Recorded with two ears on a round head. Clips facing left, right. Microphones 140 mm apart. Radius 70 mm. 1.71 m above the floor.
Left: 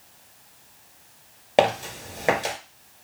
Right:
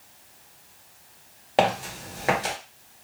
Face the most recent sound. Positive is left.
turn(degrees=25)  # may be behind; listen again after turning